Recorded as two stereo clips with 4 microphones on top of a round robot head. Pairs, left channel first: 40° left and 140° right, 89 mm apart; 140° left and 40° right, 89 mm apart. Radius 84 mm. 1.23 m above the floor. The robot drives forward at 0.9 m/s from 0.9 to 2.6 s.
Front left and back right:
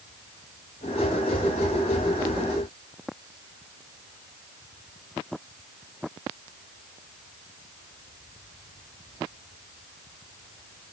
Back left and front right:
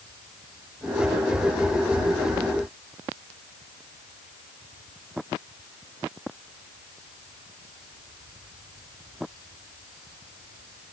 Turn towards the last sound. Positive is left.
No sound to turn to.